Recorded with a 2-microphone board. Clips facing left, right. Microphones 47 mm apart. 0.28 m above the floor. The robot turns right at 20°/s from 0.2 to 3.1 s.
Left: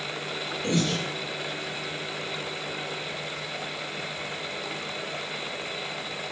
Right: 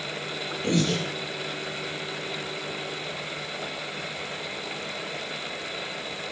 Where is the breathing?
Centre (ahead or behind), 0.7 m; by 1.0 s 5° left (ahead or behind), 0.7 m.